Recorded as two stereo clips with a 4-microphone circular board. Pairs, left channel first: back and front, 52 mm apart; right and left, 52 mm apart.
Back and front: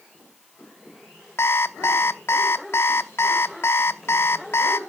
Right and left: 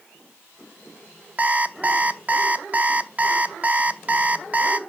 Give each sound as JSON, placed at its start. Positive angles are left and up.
{"t": 1.4, "sound": "an alarm clock", "azimuth_deg": 145, "distance_m": 0.7}